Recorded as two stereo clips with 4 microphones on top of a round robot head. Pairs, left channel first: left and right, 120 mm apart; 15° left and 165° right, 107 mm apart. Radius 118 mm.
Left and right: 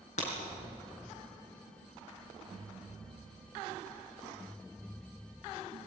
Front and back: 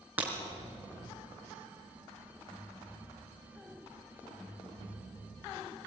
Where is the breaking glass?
115° left, 4.5 m.